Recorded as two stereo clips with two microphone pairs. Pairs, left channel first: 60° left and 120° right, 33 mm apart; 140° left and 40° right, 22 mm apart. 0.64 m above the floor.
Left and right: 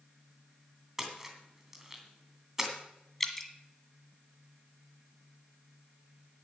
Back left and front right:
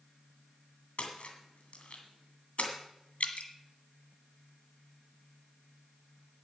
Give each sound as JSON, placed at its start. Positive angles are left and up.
{"t": 1.0, "sound": "a splash", "azimuth_deg": 160, "distance_m": 2.5}
{"t": 3.2, "sound": "dripping", "azimuth_deg": 140, "distance_m": 1.5}